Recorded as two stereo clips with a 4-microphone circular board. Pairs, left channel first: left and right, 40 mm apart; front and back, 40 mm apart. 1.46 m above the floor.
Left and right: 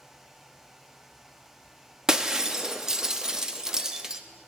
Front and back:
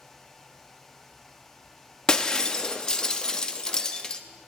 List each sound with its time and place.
2.1 s breaking glass: 35° right, 0.9 m